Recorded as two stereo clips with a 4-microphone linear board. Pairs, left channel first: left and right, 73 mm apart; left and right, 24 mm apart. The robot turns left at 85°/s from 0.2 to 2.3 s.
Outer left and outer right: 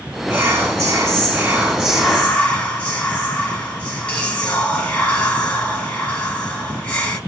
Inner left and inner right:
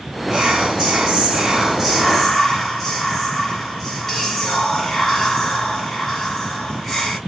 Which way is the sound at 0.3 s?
35° right.